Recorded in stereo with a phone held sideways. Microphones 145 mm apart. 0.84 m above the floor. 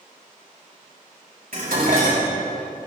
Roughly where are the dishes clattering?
Right.